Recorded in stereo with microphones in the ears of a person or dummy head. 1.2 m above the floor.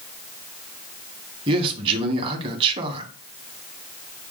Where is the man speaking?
30° right (ahead or behind), 1.2 m.